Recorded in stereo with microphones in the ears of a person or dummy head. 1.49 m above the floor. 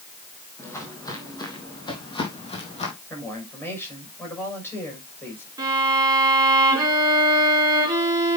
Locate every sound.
0.6 s footsteps: 20° left (ahead or behind), 4 m; by 2.9 s 35° left (ahead or behind), 4 m
3.1 s a woman speaking: 15° left (ahead or behind), 6 m
5.6 s a violin: 15° right (ahead or behind), 5 m